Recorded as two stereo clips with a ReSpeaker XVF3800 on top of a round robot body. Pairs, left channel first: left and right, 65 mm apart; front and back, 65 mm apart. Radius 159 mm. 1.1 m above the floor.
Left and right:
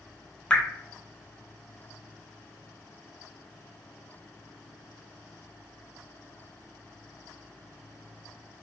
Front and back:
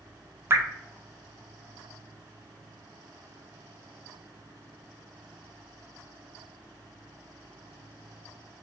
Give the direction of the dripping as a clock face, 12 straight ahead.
7 o'clock.